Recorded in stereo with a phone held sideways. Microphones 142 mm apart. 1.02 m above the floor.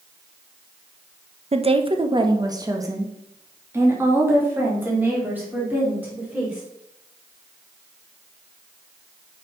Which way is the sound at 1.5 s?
45° right (ahead or behind).